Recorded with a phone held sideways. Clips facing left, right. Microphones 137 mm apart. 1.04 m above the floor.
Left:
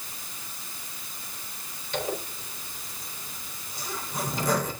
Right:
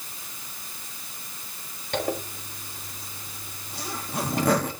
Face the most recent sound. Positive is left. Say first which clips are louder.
# right 3 dB
turn(degrees=-65)  # may be behind; listen again after turning